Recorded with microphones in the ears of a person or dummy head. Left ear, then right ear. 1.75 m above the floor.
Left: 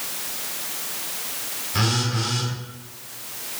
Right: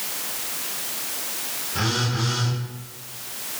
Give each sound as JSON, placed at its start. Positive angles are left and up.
{"t": 1.7, "sound": "a phone buzzing", "side_deg": 60, "distance_m": 0.9}